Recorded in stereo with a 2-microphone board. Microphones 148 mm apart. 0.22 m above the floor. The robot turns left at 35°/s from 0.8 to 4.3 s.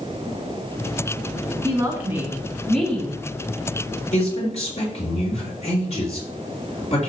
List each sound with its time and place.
1.6 s a woman speaking: 145° right, 2.5 m; by 3.2 s 160° left, 2.5 m
4.1 s a man speaking: 50° left (ahead or behind), 4 m; by 7.1 s 45° left (ahead or behind), 4 m